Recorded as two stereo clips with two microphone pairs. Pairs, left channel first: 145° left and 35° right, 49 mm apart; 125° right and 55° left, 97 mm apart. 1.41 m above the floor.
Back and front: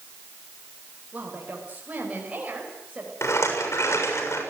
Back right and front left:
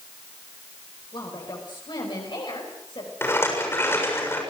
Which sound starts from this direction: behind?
A rattle, at 3.2 s.